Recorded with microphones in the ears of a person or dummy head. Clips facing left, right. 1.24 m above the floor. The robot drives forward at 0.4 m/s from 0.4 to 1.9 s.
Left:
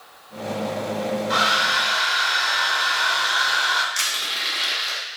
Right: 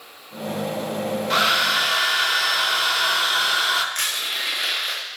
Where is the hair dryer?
35° right (ahead or behind), 0.8 m; by 3.9 s 50° right (ahead or behind), 0.7 m.